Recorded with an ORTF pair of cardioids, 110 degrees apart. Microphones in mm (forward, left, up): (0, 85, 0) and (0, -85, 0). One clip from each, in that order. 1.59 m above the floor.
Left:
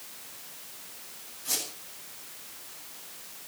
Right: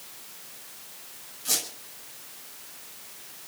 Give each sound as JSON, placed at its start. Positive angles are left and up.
{"t": 1.4, "sound": "a squeak", "azimuth_deg": -35, "distance_m": 8.0}